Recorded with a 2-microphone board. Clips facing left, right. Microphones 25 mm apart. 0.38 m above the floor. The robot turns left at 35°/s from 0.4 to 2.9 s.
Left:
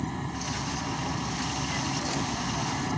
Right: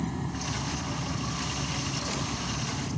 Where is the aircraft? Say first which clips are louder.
Even; 165° left; by 3.0 s 80° left.